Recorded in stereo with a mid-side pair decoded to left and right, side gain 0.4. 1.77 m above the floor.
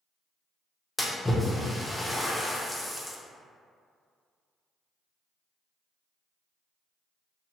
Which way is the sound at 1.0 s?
10° left.